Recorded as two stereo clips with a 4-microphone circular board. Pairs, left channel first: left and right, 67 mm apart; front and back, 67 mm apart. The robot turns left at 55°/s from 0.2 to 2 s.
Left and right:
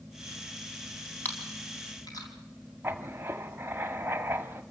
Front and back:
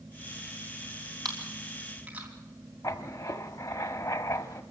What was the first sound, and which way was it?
Chewing, 150° left.